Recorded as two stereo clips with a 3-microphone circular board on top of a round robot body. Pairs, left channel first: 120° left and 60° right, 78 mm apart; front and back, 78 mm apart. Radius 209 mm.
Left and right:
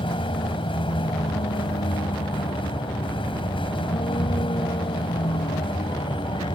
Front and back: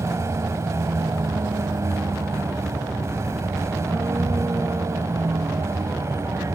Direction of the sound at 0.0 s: 125° left.